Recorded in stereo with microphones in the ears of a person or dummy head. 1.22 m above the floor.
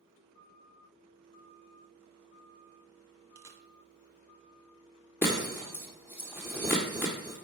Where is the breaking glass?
15° left (ahead or behind), 1.3 m.